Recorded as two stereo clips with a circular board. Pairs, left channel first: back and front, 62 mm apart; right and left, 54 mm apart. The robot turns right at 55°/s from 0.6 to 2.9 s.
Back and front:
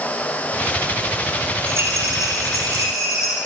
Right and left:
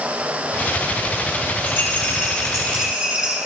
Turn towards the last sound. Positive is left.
turn(degrees=10)